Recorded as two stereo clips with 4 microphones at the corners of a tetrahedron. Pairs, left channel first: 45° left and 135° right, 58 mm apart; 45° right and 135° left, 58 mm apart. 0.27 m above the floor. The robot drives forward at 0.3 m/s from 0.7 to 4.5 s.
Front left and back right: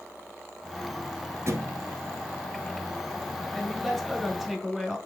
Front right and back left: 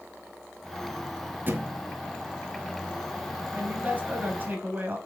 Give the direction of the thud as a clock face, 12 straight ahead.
6 o'clock.